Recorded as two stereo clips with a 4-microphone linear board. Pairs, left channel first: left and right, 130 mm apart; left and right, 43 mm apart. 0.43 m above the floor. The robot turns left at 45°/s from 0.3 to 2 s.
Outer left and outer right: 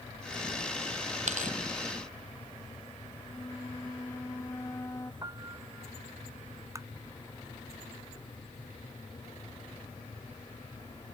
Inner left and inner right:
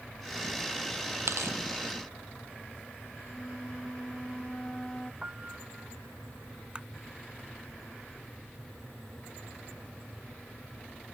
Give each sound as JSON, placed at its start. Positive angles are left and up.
{"t": 1.3, "sound": "tearing paper", "side_deg": -65}
{"t": 3.3, "sound": "a flute", "side_deg": 20}
{"t": 5.2, "sound": "a piano", "side_deg": -30}
{"t": 6.8, "sound": "tapping", "side_deg": -25}